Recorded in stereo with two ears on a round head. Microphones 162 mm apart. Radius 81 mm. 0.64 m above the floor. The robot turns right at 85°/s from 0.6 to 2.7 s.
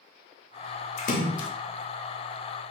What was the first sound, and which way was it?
A splash, 35° left.